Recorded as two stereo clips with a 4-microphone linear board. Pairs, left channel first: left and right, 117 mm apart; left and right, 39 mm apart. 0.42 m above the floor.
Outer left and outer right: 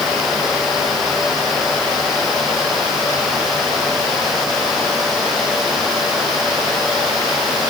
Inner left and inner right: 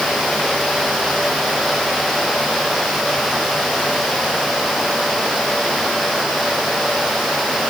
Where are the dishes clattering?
No dishes clattering in this recording.